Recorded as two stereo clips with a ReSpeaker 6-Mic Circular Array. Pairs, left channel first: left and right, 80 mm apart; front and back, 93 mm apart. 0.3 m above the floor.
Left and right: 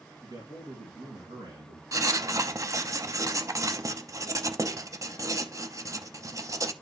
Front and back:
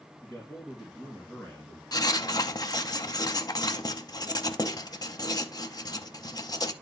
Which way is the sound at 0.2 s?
75° right.